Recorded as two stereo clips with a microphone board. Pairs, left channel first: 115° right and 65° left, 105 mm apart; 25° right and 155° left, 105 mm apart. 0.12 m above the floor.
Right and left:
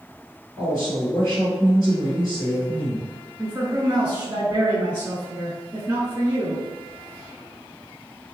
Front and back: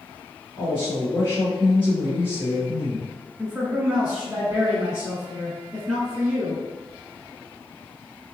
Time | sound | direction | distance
0.6 | a woman speaking | 70° right | 1.8 m
3.4 | a man speaking | 80° left | 1.1 m